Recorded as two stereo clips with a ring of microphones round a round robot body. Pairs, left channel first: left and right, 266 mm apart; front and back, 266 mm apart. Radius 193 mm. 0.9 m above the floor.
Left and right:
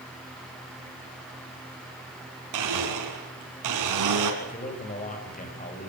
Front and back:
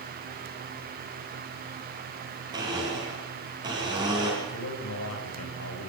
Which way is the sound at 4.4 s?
30° left.